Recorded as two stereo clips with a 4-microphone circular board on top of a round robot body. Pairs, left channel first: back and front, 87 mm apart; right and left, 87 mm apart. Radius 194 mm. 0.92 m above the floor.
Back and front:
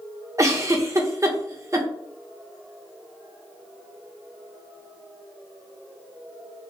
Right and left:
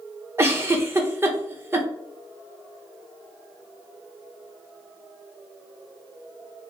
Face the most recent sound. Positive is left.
turn(degrees=40)